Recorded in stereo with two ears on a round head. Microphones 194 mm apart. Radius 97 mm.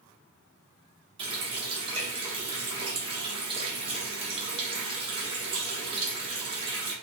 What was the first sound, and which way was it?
A running tap, 25° right (ahead or behind).